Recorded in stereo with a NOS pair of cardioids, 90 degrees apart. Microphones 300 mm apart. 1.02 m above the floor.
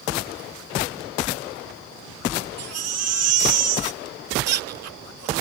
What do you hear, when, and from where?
2.6 s a baby crying: 55° right